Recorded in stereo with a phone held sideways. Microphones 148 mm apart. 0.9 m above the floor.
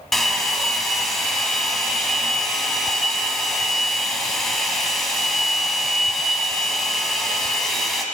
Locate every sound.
0.1 s a hair dryer: centre (ahead or behind), 1.3 m